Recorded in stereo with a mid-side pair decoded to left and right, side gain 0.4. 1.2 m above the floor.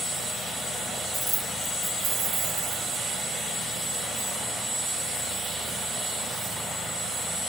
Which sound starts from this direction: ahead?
Keys jangling, at 1.1 s.